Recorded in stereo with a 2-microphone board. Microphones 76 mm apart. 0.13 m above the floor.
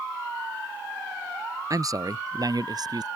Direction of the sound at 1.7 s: 50° right (ahead or behind).